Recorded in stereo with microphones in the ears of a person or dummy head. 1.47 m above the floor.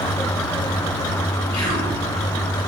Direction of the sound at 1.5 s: 20° left (ahead or behind).